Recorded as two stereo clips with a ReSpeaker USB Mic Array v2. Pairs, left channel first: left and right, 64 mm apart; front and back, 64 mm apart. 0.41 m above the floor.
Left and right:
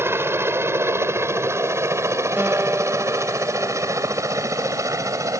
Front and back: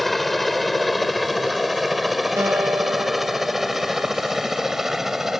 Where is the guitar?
150° right.